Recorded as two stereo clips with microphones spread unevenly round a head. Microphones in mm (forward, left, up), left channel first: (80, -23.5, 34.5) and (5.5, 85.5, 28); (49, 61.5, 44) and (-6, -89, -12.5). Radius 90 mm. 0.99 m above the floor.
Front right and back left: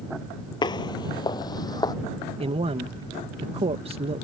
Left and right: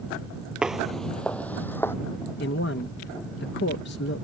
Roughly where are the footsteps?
Ahead.